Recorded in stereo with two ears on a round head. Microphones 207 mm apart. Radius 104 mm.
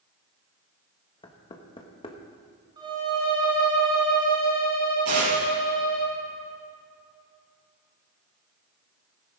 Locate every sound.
1.2 s knocking: 20° left (ahead or behind), 1.3 m
2.8 s a violin: 20° right (ahead or behind), 4 m
5.0 s tearing paper: 80° right, 5 m